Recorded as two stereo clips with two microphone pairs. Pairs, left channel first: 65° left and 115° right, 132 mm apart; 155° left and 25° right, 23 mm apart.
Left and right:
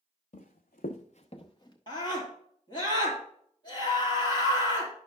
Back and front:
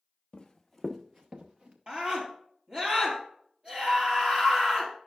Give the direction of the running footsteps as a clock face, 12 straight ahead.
9 o'clock.